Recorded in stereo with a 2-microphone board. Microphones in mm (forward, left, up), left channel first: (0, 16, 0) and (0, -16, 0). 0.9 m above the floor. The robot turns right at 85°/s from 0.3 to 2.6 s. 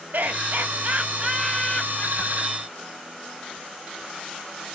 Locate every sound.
0.1 s laughter: 70° right (ahead or behind), 1.5 m; by 2.9 s 70° left (ahead or behind), 1.5 m